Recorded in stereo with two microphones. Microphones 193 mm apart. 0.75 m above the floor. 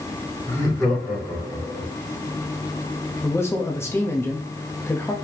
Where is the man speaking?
15° left (ahead or behind), 0.7 m.